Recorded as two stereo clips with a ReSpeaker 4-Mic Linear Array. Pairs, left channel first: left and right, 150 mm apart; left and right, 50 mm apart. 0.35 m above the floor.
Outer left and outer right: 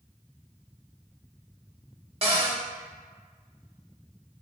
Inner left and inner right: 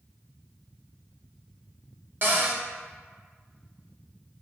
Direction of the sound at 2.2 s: 40° right (ahead or behind).